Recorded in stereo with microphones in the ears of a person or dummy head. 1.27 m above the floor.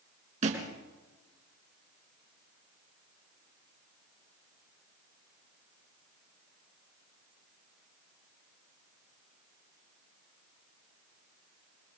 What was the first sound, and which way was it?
A thud, 45° right (ahead or behind).